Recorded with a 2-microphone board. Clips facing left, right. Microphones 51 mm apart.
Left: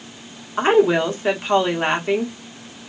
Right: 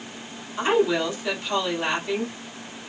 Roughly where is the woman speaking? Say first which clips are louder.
Left 6 dB; left.